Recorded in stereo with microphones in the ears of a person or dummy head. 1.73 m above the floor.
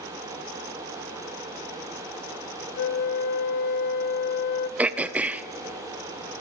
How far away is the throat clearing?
About 0.6 m.